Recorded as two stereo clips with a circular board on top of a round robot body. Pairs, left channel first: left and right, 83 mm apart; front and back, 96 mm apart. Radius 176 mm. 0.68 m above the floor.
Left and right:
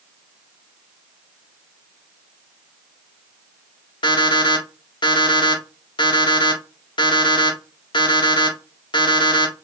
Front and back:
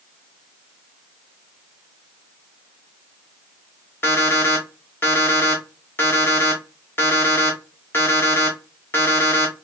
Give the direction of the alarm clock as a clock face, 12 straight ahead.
10 o'clock.